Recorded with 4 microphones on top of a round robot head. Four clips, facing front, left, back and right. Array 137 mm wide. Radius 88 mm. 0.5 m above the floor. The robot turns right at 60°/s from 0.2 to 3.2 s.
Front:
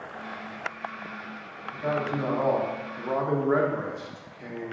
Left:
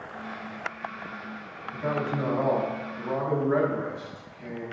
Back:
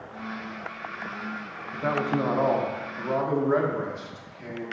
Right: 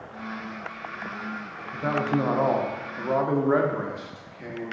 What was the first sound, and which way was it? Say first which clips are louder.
A man speaking: right 4 dB, back 2 dB; 155° right.